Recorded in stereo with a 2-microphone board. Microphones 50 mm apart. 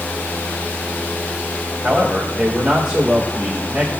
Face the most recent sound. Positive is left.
turn(degrees=-15)  # may be behind; listen again after turning